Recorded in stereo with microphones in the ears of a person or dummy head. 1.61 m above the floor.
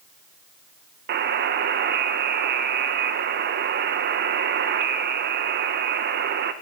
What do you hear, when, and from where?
1.1 s a buzzer: 60° right (ahead or behind), 1.0 m